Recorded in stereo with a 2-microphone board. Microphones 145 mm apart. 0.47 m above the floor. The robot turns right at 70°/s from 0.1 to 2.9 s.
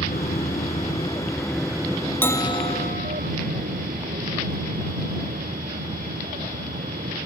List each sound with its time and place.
0.0 s an aircraft: 75° left (ahead or behind); by 7.3 s 80° right
2.2 s a bell: 10° left; by 3.3 s 60° left